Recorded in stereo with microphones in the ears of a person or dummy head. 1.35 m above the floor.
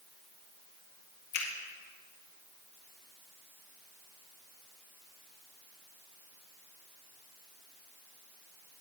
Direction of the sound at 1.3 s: 55° left (ahead or behind).